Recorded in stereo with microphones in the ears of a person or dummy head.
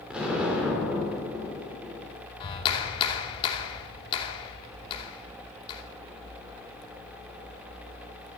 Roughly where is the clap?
Left.